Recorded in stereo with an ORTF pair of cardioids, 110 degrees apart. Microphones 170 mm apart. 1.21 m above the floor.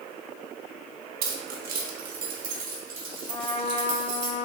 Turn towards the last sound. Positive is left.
turn(degrees=40)